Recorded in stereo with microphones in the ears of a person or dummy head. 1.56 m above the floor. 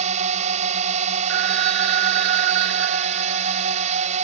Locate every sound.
0.0 s a drone: 50° right (ahead or behind)
1.3 s a phone ringing: 60° right (ahead or behind)